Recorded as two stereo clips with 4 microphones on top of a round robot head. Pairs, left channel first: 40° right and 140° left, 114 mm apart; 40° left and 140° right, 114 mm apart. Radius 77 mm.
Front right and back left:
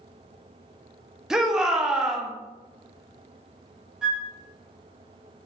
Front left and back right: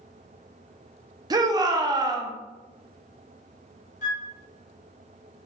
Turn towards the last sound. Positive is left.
turn(degrees=55)